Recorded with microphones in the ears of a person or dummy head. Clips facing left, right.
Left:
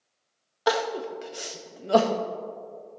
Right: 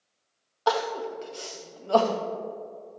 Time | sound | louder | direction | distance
0.7 | crying | left 1 dB | 20° left (ahead or behind) | 0.5 m